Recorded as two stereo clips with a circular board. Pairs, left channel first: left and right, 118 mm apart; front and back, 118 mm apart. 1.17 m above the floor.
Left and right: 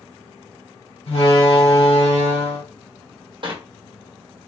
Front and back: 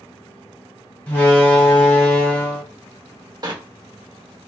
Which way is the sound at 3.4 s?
130° right.